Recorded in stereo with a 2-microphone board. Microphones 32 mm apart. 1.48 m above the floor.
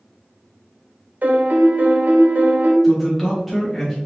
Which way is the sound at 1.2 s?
55° right (ahead or behind).